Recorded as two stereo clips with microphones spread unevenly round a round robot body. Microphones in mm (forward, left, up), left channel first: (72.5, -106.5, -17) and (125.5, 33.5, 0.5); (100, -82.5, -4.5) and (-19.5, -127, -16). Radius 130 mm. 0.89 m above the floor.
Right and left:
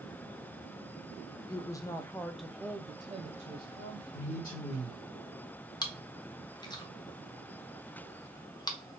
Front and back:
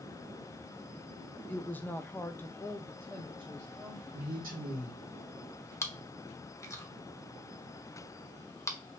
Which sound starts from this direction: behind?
A man speaking, at 4.1 s.